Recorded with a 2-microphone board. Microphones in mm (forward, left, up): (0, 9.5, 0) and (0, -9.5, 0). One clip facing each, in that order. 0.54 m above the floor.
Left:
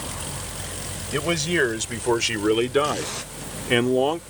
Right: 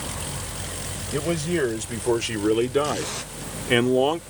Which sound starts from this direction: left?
A man speaking, at 1.1 s.